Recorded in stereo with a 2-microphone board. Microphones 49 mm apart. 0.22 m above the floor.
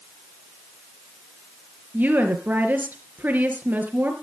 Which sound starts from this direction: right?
A woman speaking, at 1.9 s.